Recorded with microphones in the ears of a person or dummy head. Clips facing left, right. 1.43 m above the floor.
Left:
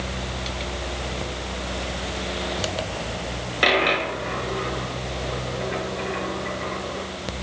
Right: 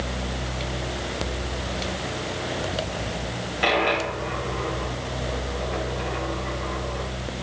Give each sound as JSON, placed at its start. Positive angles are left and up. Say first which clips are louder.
{"t": 3.6, "sound": "a dropped coin", "louder": "left 1 dB", "side_deg": 75, "distance_m": 7.0}